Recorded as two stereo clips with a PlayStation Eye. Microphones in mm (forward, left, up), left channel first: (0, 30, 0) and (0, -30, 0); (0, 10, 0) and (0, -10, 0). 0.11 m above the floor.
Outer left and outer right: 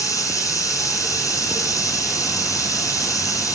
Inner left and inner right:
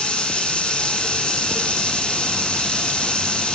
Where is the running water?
70° left (ahead or behind), 4.5 m.